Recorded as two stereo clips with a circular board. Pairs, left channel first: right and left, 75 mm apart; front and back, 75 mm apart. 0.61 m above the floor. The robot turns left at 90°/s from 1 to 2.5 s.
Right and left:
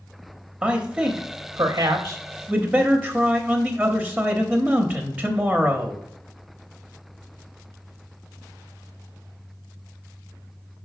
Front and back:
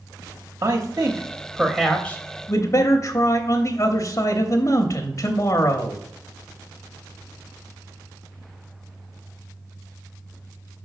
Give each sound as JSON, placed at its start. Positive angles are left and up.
{"t": 0.6, "sound": "a man speaking", "azimuth_deg": 155, "distance_m": 0.8}